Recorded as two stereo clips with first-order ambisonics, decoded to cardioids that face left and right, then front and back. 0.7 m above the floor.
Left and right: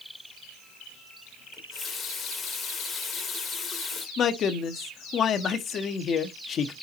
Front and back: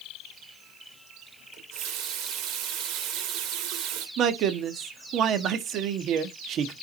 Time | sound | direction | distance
1.5 | a running tap | 155° left | 1.6 m
4.2 | a man speaking | 140° left | 0.9 m